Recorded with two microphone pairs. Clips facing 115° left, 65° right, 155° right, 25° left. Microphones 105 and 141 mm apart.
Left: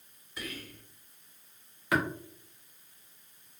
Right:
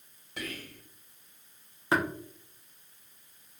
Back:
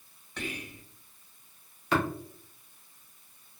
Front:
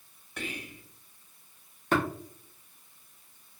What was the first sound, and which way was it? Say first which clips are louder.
Whispering: right 2 dB, back 1 dB; 55° right.